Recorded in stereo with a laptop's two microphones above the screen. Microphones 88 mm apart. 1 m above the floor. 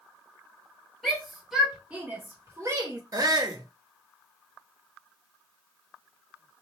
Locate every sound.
1.0 s a shout: 5° left (ahead or behind), 1.1 m; by 3.0 s 45° right (ahead or behind), 1.0 m
3.1 s a shout: 45° right (ahead or behind), 0.7 m